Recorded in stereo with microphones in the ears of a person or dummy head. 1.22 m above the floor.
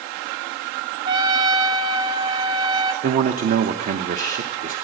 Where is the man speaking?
45° right (ahead or behind), 0.8 m.